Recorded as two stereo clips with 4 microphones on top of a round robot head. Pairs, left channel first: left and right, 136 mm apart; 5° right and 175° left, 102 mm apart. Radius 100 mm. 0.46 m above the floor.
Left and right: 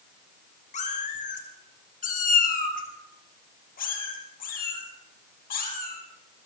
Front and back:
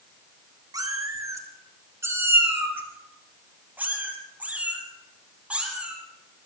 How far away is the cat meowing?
About 2.5 m.